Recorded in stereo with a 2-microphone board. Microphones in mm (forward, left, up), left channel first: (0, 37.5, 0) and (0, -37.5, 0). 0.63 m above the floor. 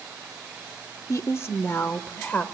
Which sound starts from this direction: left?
A woman speaking, at 1.1 s.